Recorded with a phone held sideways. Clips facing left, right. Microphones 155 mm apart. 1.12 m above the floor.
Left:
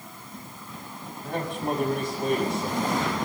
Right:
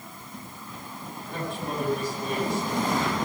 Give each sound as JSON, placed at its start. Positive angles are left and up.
{"t": 1.2, "sound": "a man speaking", "side_deg": 50, "distance_m": 5.0}